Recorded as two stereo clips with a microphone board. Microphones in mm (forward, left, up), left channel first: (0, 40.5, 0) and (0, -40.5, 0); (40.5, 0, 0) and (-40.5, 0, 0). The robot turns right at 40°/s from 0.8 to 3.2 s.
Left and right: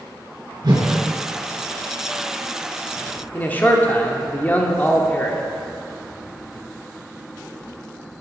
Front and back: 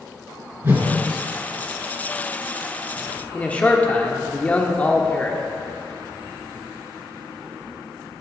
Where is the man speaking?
50° left, 1.1 m.